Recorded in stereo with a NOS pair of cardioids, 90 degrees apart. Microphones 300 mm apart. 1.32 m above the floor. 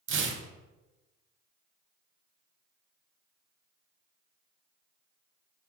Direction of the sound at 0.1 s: 40° right.